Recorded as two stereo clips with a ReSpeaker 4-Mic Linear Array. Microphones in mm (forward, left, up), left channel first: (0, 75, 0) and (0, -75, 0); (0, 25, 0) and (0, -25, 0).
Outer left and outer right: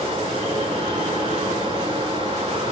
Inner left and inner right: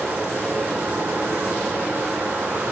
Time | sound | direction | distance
0.0 | running water | 40° right (ahead or behind) | 4 m